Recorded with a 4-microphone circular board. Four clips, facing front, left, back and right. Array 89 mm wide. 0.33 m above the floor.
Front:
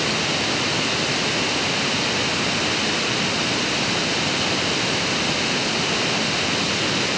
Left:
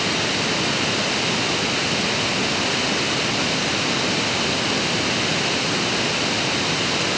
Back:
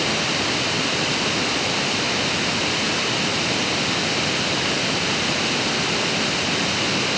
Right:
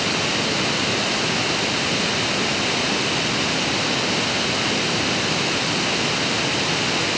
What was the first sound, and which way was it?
Only background noise.